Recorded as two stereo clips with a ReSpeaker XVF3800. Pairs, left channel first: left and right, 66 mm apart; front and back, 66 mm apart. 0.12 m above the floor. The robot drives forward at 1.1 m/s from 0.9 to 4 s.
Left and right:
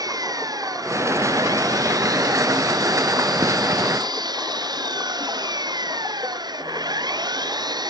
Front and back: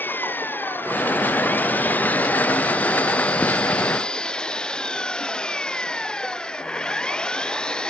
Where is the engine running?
65° right; by 7.9 s 80° right.